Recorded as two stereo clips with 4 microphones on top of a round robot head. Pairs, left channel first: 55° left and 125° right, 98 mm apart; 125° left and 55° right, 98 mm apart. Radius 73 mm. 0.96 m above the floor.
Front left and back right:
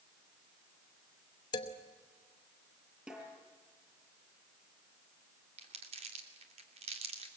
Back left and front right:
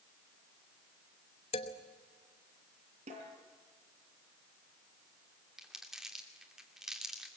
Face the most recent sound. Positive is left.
turn(degrees=-140)